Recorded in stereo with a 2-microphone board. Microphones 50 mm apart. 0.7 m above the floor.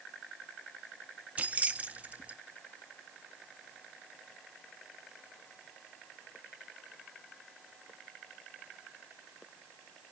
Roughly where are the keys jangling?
Right.